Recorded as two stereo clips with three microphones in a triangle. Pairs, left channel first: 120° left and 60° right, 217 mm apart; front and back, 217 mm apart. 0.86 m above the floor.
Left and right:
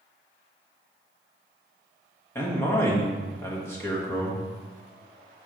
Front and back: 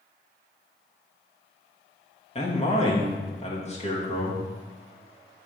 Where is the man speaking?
45° left, 1.4 m.